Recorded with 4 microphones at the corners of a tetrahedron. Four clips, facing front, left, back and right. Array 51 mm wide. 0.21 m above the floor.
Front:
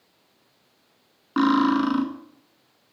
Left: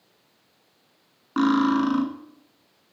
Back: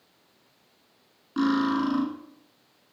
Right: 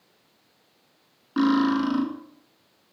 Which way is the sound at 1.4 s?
30° left.